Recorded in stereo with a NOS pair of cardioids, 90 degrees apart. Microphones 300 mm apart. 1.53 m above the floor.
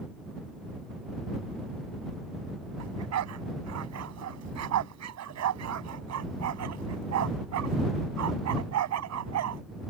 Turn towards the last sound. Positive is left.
turn(degrees=-65)